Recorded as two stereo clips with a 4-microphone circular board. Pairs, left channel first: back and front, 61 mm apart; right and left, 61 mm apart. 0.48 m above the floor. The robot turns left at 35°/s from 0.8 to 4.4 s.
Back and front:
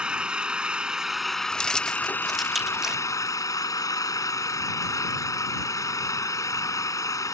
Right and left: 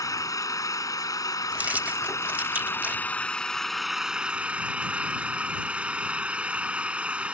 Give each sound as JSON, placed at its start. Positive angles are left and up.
{"t": 0.0, "sound": "an engine running", "azimuth_deg": -75}
{"t": 1.5, "sound": "keys jangling", "azimuth_deg": 120}